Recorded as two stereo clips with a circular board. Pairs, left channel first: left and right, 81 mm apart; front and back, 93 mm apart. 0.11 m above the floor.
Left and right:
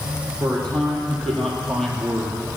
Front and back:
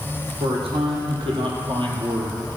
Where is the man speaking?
170° left, 4.5 m; by 2.4 s 175° left, 2 m.